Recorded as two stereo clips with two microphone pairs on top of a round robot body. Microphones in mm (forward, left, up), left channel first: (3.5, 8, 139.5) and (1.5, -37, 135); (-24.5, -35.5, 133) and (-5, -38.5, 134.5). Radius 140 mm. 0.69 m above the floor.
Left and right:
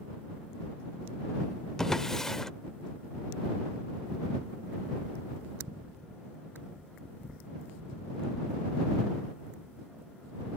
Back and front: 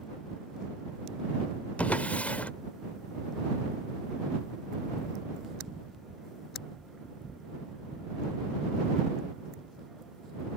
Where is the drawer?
165° left.